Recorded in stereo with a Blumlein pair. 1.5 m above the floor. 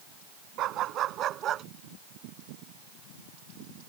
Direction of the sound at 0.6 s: 35° right.